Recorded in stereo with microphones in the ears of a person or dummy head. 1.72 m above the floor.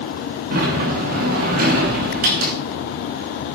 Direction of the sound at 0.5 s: 50° right (ahead or behind).